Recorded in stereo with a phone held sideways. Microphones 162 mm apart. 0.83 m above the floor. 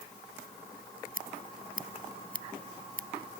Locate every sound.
1.1 s scissors: 60° right (ahead or behind)